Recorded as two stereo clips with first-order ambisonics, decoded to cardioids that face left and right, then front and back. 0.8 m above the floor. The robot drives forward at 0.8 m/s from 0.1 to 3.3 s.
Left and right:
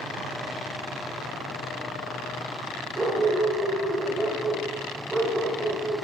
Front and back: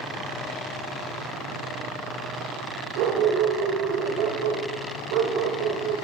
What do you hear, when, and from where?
3.0 s a dog barking: 165° right, 1.2 m